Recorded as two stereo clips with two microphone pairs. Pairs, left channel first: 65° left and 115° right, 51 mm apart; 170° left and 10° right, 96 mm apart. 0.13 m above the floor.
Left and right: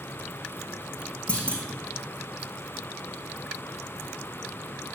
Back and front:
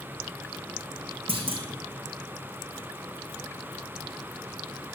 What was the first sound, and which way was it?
A clunk, straight ahead.